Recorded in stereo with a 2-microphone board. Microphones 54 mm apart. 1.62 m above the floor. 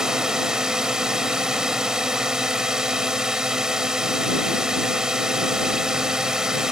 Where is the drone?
10° right (ahead or behind).